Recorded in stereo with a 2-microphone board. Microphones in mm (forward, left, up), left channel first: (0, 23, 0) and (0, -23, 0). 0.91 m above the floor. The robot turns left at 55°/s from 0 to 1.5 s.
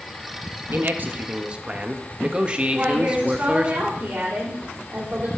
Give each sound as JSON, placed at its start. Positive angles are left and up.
{"t": 0.7, "sound": "a man speaking", "azimuth_deg": -110, "distance_m": 1.1}
{"t": 2.7, "sound": "a woman speaking", "side_deg": -25, "distance_m": 2.5}